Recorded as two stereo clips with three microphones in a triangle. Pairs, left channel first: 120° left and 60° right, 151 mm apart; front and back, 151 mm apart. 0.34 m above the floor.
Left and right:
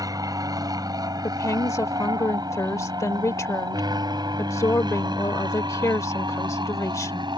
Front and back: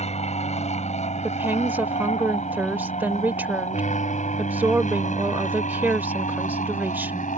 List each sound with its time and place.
0.0 s an aircraft: 5° right
1.2 s a woman speaking: 125° left